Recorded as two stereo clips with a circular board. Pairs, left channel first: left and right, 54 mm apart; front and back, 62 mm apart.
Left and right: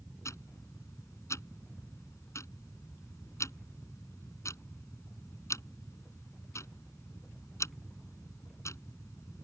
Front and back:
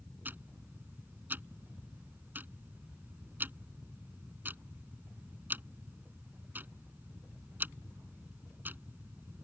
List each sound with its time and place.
0.2 s ticking: 120° left